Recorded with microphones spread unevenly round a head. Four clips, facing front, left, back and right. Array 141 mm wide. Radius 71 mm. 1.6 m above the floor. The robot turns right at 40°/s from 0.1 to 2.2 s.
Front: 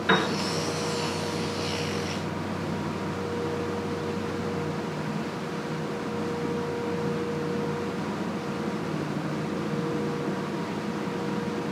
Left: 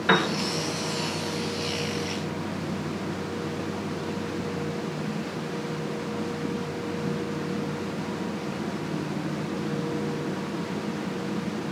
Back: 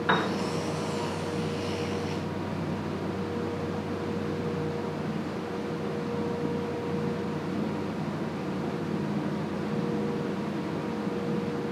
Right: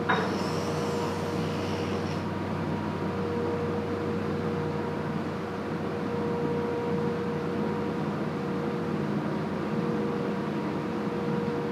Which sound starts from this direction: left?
A piano, at 0.1 s.